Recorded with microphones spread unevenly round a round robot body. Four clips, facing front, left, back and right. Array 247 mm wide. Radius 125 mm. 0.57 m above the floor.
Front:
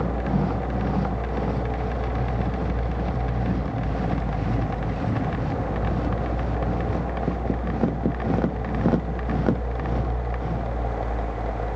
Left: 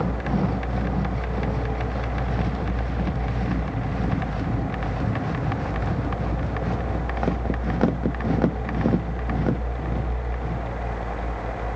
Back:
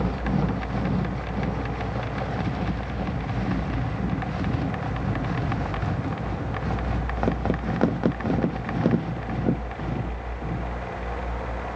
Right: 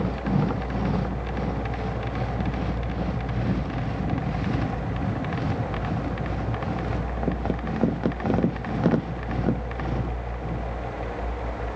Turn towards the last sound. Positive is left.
No sound to turn to.